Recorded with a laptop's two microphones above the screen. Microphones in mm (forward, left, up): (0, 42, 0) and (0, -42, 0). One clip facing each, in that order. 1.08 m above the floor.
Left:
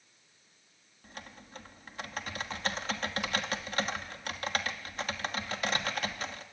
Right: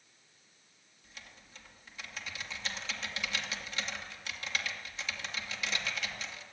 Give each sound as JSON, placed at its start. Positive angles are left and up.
{"t": 1.0, "sound": "typing on a keyboard", "side_deg": 50, "distance_m": 2.5}